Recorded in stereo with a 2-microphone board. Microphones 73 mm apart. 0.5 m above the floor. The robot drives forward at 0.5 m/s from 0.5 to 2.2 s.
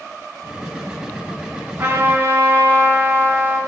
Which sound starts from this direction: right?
A trumpet, at 1.8 s.